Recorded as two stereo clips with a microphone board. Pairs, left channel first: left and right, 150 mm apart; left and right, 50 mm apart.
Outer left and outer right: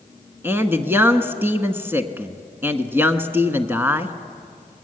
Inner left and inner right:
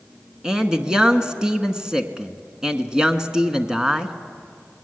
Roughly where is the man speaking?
Centre.